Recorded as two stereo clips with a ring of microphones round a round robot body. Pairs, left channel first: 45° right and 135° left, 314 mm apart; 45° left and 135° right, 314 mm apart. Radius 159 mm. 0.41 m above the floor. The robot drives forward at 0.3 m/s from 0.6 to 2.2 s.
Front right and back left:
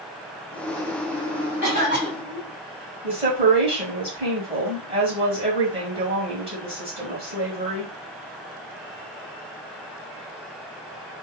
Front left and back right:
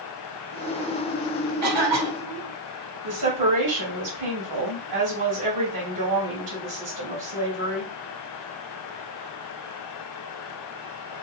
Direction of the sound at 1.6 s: 160° right.